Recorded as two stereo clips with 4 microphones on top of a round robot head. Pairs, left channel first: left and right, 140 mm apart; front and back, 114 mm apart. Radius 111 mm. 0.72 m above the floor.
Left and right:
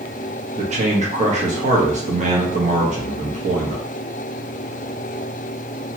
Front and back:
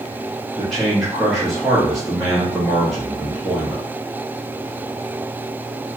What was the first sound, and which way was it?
A man speaking, 85° right.